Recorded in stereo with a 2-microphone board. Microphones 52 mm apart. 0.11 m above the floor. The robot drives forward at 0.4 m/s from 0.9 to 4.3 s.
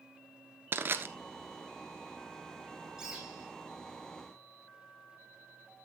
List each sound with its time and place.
0.7 s crushing: 40° right (ahead or behind), 0.9 m
3.0 s a bird: 5° right (ahead or behind), 5 m